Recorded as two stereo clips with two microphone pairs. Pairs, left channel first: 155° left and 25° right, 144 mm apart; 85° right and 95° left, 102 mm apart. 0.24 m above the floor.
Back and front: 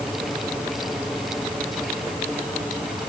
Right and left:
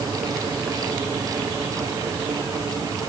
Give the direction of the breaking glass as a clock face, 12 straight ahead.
No breaking glass in this recording.